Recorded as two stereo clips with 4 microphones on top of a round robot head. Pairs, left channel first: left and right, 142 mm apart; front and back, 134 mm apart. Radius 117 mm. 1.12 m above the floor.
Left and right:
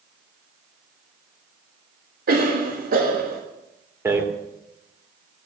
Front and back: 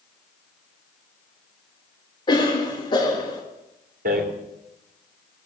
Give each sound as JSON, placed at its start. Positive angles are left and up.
{"t": 2.3, "sound": "a cough", "azimuth_deg": -65, "distance_m": 1.6}
{"t": 4.0, "sound": "a rattle", "azimuth_deg": -160, "distance_m": 2.5}